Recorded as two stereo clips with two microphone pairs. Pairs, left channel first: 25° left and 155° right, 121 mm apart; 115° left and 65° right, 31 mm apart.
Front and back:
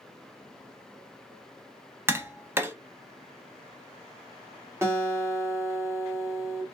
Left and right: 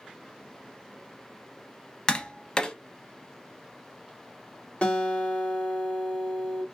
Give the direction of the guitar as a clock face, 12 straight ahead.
7 o'clock.